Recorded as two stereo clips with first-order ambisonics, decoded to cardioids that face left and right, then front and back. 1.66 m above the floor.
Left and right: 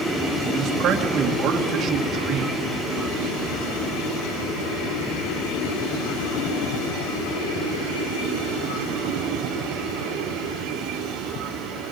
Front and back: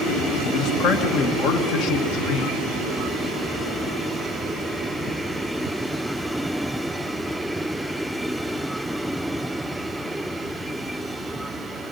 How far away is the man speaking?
About 2.5 m.